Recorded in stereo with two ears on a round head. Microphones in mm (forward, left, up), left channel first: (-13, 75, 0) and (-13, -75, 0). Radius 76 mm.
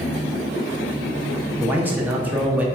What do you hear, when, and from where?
1.6 s a man speaking: 10° right (ahead or behind), 0.6 m